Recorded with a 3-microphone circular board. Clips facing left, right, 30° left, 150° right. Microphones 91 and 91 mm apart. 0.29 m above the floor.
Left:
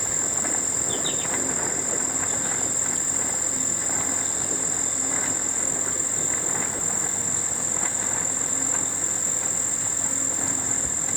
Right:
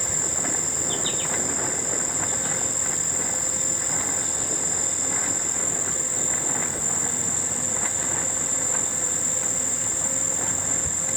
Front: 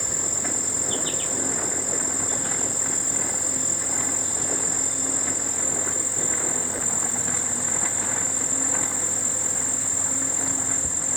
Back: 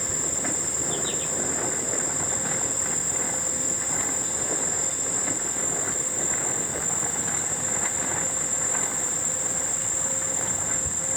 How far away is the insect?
About 1.4 m.